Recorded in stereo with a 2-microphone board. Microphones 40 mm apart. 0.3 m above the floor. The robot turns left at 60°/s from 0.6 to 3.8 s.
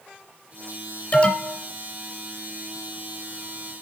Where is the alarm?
35° left (ahead or behind), 2.5 m; by 1.6 s 10° left (ahead or behind), 2.5 m.